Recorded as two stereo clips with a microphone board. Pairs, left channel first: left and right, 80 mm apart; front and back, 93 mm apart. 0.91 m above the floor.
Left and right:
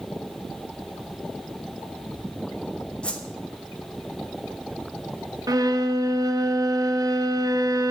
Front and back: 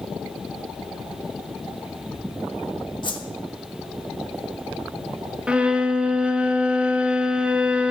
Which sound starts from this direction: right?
A violin, at 5.5 s.